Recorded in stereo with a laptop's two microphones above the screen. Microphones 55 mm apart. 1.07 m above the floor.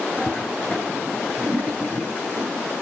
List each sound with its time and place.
0.2 s a toilet flushing: 35° left (ahead or behind), 5 m